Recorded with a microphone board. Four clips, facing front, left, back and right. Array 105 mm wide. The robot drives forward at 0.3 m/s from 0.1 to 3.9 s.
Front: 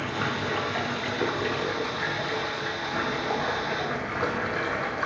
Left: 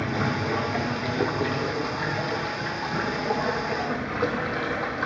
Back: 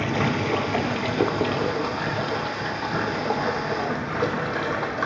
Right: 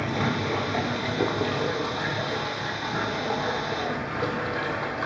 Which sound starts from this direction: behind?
Running water, at 0.0 s.